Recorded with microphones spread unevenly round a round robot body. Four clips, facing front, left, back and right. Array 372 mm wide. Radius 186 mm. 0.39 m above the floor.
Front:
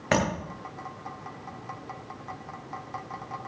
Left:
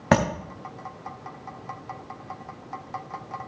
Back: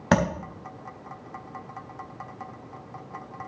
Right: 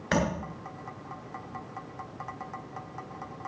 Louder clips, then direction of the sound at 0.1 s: Left 7 dB, back 3 dB; 115° left.